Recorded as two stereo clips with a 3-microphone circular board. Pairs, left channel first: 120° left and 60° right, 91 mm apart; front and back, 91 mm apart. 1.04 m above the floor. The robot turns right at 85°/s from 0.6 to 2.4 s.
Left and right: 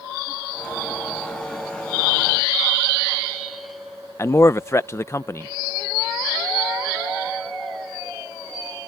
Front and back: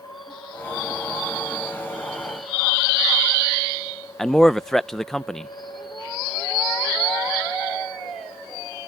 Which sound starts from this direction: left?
A man speaking, at 4.2 s.